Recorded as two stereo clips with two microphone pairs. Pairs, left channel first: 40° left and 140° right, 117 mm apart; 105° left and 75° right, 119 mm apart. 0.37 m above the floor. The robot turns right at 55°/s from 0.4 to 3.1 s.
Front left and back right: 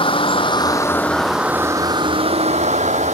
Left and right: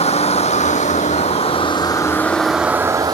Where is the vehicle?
80° left; by 3.1 s 130° right.